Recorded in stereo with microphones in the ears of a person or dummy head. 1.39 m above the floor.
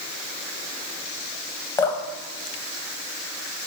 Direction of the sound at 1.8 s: 20° left (ahead or behind).